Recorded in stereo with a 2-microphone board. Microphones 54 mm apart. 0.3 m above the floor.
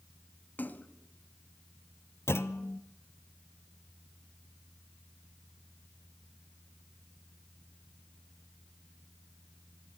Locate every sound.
0.6 s a splash: 35° left (ahead or behind), 1.3 m
2.3 s a clunk: 50° left (ahead or behind), 1.0 m